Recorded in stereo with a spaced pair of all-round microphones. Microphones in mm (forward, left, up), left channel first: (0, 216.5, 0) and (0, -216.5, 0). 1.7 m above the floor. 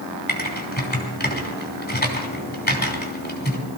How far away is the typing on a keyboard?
About 3 m.